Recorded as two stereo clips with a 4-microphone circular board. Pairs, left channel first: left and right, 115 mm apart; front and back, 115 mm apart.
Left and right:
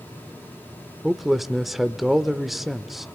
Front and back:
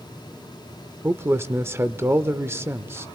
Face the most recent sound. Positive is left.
turn(degrees=-175)